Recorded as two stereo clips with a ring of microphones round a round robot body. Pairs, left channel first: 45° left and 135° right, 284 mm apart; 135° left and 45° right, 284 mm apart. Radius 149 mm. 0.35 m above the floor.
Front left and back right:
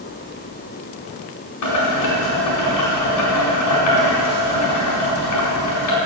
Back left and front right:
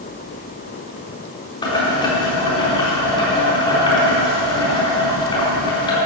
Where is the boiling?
65° left, 4 m.